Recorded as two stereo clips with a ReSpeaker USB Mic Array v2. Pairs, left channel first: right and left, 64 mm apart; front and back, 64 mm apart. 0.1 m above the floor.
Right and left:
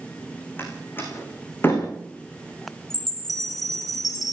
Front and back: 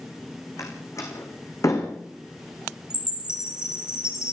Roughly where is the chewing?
I don't hear chewing.